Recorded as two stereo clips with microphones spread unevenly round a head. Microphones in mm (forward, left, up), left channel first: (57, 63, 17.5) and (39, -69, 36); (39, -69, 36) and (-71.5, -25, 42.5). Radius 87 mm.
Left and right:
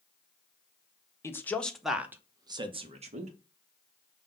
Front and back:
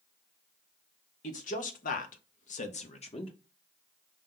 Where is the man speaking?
10° left, 1.1 m; by 3.4 s 65° right, 1.1 m.